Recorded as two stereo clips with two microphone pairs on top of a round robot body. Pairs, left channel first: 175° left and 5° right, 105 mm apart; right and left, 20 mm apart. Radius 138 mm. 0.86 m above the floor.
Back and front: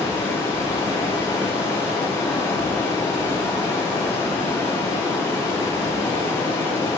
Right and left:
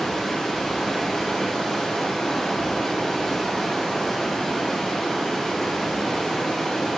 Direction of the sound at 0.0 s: 140° right.